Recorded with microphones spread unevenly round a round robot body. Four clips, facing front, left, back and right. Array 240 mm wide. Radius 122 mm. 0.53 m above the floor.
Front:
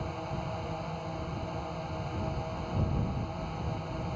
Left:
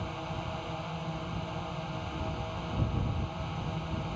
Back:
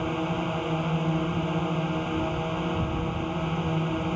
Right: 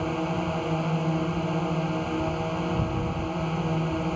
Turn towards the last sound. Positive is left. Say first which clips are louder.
# right 10 dB, back 9 dB
turn(degrees=-140)